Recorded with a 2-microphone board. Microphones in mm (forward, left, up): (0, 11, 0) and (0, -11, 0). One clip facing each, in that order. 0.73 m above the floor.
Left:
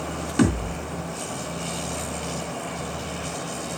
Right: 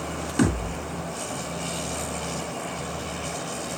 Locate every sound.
0.4 s a thud: 10° left (ahead or behind), 3 m